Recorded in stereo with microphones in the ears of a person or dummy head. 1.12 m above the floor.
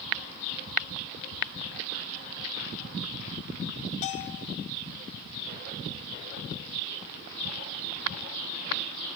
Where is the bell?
40° left (ahead or behind), 1.3 m.